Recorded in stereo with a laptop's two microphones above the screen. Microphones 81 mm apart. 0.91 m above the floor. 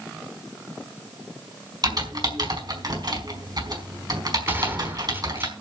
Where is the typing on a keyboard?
55° right (ahead or behind), 5 m.